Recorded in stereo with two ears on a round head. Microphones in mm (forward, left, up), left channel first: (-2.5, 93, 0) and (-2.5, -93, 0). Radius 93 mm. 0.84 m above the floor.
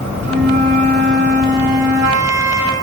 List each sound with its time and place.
0.2 s a flute: 55° right (ahead or behind), 1.5 m